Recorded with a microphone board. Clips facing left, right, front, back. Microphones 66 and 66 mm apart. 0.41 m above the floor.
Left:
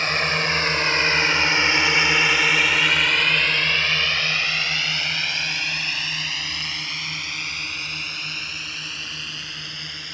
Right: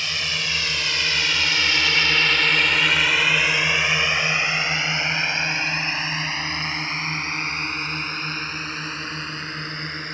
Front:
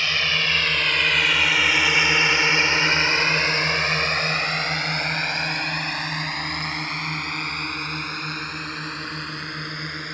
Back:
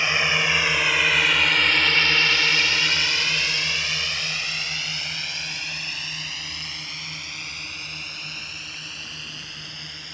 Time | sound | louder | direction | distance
0.0 | a drone | left 6 dB, back 2 dB | 115° left | ?